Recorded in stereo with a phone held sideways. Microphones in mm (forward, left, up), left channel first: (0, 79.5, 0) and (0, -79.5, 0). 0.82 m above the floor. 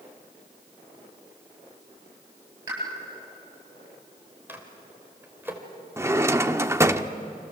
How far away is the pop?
About 10 m.